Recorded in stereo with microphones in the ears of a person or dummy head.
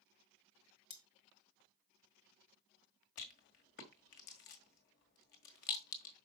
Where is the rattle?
45° left (ahead or behind), 1.5 m.